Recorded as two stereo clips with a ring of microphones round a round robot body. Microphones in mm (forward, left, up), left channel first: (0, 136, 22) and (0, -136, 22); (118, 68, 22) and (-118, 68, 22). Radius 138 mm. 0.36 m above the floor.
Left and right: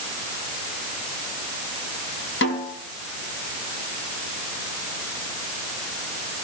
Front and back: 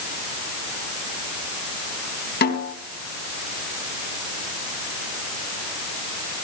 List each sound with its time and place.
2.4 s a snare drum: 45° left, 4 m